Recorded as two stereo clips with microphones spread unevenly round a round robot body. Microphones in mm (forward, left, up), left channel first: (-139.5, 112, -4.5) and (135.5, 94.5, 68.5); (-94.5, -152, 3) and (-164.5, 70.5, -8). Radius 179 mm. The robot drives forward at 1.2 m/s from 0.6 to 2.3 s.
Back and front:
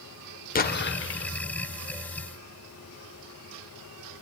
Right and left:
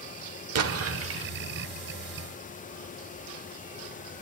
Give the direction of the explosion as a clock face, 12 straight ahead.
8 o'clock.